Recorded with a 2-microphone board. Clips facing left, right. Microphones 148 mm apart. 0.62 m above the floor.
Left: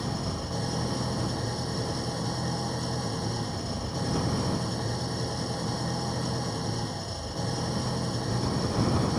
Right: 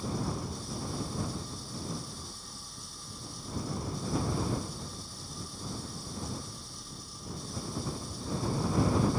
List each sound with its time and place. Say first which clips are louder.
0.0 s an engine running: left 2 dB; 70° left (ahead or behind)